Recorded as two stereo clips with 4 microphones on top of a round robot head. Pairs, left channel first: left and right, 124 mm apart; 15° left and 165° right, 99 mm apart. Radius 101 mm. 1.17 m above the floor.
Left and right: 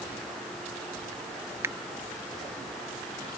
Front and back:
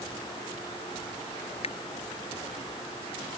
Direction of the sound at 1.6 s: 20° right.